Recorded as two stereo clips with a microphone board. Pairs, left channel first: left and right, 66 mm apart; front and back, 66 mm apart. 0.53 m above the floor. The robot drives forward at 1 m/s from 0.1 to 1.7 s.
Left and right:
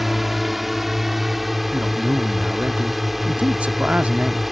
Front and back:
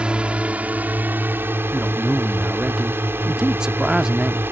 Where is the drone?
170° right; by 4.5 s 175° right.